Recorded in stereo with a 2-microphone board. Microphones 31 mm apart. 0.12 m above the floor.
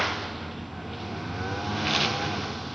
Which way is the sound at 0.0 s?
5° right (ahead or behind).